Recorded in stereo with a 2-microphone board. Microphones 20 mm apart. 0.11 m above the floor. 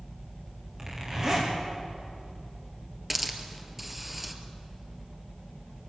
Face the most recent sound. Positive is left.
turn(degrees=-10)  # may be behind; listen again after turning